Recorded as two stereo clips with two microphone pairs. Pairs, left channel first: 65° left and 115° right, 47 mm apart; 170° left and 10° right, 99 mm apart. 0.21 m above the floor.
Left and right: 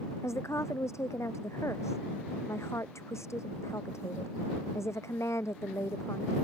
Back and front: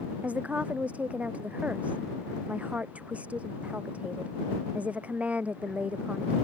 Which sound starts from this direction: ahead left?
A woman speaking, at 0.2 s.